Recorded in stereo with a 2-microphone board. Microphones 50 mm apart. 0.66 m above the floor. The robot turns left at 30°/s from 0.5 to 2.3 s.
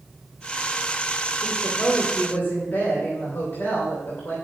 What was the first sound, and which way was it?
A woman speaking, 25° left (ahead or behind).